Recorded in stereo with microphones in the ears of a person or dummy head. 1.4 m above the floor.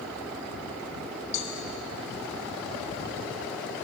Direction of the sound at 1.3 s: 60° left (ahead or behind).